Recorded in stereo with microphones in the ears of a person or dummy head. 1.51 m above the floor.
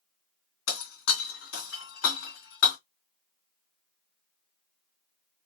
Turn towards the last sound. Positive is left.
turn(degrees=65)  # may be behind; listen again after turning